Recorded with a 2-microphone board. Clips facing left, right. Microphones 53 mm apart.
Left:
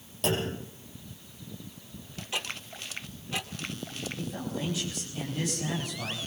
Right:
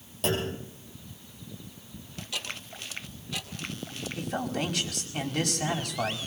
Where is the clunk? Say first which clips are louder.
Even; centre (ahead or behind), 7 m.